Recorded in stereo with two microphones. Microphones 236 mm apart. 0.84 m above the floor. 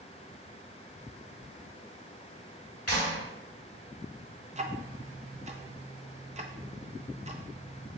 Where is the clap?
80° left, 2.0 m.